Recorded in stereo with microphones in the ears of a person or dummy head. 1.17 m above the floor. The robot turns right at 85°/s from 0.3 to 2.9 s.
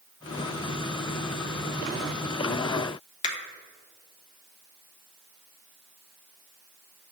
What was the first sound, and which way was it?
A finger snap, 35° left (ahead or behind).